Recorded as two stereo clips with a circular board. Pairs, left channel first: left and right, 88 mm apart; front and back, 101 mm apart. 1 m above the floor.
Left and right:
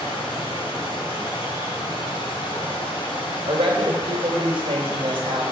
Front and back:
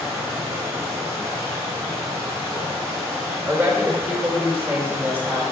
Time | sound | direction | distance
0.0 | running water | 115° left | 3 m
3.5 | a woman speaking | 110° right | 3 m